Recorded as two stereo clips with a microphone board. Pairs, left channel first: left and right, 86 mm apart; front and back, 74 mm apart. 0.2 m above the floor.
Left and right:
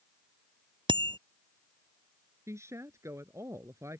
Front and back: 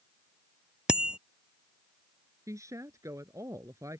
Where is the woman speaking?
140° right.